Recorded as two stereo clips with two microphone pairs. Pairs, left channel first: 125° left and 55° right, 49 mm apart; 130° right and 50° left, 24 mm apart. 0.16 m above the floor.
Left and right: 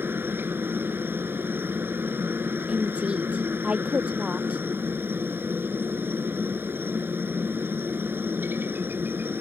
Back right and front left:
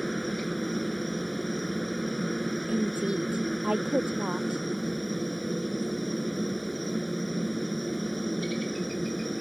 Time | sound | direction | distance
0.0 | a helicopter | 45° right | ?
2.7 | a woman speaking | 5° left | ?